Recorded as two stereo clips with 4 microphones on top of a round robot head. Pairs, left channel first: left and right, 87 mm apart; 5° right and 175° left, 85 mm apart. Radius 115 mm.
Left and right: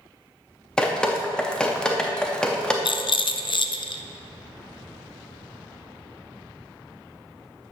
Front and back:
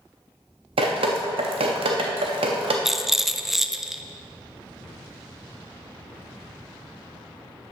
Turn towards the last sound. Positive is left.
turn(degrees=90)